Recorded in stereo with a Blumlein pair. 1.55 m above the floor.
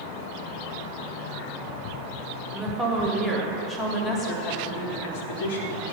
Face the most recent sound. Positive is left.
turn(degrees=55)